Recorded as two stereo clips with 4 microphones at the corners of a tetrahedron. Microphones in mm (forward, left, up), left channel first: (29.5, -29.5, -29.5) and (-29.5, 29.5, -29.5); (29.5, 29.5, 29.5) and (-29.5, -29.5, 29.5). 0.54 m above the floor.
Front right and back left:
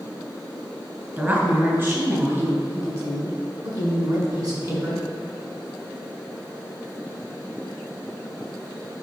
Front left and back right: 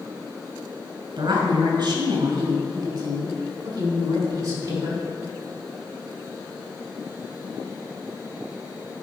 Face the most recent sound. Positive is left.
turn(degrees=175)